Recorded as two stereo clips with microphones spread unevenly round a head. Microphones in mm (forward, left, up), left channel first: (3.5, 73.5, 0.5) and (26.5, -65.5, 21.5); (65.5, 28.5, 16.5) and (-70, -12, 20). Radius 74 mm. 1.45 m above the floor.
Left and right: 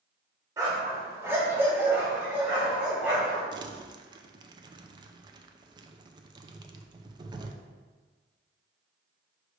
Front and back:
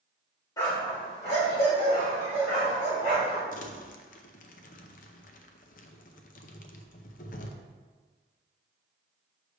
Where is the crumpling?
20° right, 0.5 m.